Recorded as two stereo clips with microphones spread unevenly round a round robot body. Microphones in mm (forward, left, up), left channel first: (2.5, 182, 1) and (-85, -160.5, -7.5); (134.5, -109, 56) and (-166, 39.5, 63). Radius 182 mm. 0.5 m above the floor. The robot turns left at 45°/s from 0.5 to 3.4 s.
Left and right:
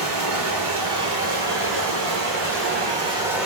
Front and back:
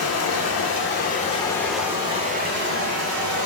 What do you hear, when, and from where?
0.0 s running water: 60° right, 1.3 m; by 3.5 s 170° left, 1.3 m